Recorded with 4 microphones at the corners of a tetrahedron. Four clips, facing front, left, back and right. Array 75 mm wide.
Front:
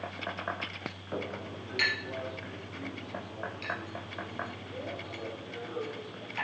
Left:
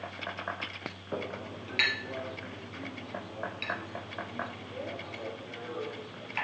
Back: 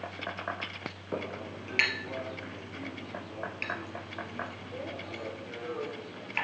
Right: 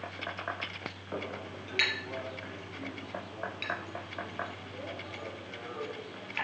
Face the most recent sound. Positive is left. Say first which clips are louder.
# left 2 dB, back 1 dB
turn(degrees=160)